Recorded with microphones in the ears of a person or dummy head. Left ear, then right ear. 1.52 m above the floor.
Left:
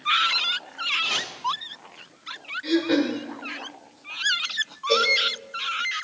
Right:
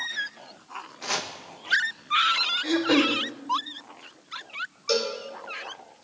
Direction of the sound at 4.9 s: 65° right (ahead or behind).